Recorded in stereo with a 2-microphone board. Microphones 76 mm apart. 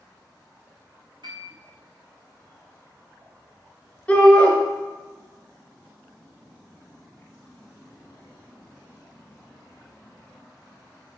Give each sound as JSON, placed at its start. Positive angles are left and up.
{"t": 1.2, "sound": "a piano", "side_deg": -75, "distance_m": 2.0}
{"t": 4.1, "sound": "a shout", "side_deg": 15, "distance_m": 1.3}